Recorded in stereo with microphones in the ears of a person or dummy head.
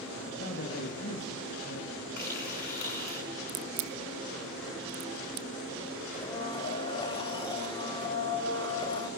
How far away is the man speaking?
About 2 m.